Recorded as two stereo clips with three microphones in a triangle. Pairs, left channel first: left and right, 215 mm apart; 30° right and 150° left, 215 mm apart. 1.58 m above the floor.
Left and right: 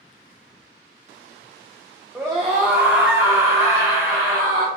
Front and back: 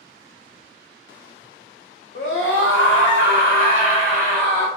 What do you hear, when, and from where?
2.1 s a scream: 5° right, 0.6 m; by 4.7 s 95° right, 1.6 m